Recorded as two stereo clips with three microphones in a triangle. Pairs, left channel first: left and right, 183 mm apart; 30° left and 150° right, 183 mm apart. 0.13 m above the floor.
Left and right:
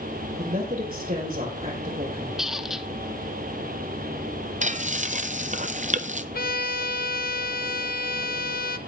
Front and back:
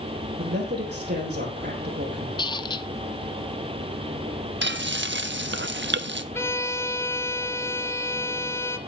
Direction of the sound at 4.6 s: 140° right.